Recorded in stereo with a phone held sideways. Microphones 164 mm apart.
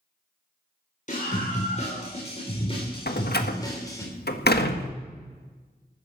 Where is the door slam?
80° left, 1.5 m.